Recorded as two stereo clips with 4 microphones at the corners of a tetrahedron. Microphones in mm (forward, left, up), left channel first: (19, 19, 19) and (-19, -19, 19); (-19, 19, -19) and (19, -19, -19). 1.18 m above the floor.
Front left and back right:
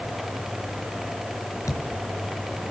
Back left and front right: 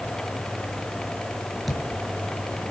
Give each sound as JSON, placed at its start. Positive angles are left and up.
{"t": 1.7, "sound": "a thud", "azimuth_deg": 45, "distance_m": 5.0}